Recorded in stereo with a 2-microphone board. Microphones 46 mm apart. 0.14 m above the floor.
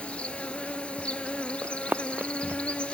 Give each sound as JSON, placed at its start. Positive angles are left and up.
{"t": 0.0, "sound": "an insect", "side_deg": 25, "distance_m": 0.8}
{"t": 1.6, "sound": "running footsteps", "side_deg": -40, "distance_m": 0.6}